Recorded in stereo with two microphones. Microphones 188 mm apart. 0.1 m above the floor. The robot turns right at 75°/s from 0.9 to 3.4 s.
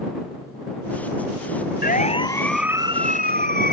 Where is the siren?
55° left (ahead or behind); by 3.7 s 60° right (ahead or behind).